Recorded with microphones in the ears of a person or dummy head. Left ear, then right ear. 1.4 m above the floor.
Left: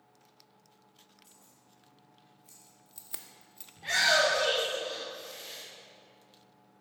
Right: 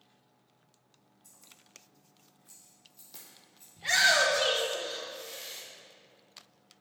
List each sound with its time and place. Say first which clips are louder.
1.2 s keys jangling: right 2 dB; centre (ahead or behind), 2.5 m; by 3.7 s 35° left (ahead or behind), 0.9 m
3.8 s a shout: right 1 dB; 20° right (ahead or behind), 1.2 m